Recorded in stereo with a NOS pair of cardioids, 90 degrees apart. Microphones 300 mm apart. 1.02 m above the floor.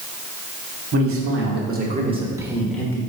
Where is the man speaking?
50° right, 1.3 m; by 3.0 s 10° left, 1.2 m.